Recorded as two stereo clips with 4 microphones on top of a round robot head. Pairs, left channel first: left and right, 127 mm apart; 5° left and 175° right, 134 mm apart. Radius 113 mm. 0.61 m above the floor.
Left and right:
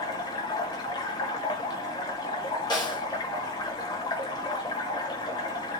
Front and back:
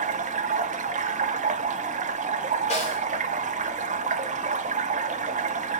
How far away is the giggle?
No giggle in this recording.